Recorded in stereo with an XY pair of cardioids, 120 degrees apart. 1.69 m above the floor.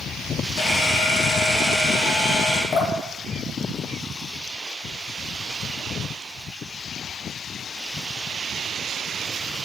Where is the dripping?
60° left, 1.4 m.